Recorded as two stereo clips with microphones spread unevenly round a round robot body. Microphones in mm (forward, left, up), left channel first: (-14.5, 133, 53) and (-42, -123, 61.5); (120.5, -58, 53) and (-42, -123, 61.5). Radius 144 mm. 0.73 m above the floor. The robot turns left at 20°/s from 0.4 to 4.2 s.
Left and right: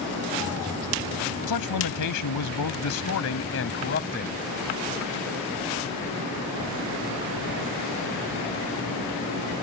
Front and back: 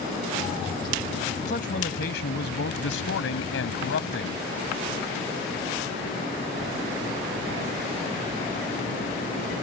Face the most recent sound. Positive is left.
turn(degrees=25)